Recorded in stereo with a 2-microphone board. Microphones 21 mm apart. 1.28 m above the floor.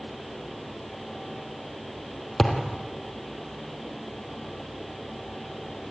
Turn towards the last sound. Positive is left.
turn(degrees=10)  # may be behind; listen again after turning